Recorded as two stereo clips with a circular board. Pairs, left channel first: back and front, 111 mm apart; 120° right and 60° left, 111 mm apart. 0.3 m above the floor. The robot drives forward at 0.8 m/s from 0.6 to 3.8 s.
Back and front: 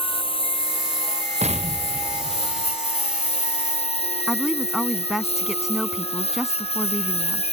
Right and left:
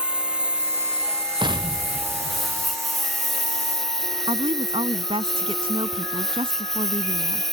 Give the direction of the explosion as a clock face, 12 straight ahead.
12 o'clock.